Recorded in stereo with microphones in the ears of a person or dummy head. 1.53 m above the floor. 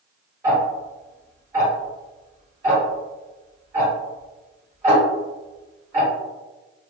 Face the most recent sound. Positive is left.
turn(degrees=-15)  # may be behind; listen again after turning